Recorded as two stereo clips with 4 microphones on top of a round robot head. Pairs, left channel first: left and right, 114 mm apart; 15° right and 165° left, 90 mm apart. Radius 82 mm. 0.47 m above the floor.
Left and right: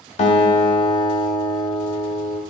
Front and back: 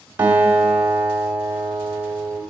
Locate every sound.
0.2 s a guitar: 100° left, 1.5 m